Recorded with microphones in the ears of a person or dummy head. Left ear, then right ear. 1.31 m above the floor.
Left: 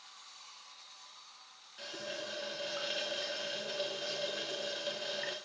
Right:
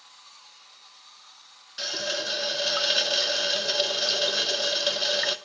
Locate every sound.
1.8 s a running tap: 45° right (ahead or behind), 0.6 m